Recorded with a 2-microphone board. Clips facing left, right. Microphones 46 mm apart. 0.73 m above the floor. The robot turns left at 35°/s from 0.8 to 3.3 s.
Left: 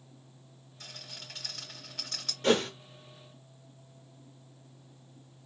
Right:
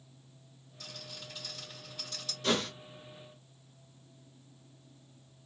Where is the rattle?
35° left (ahead or behind), 1.9 m; by 2.3 s 75° left (ahead or behind), 1.9 m.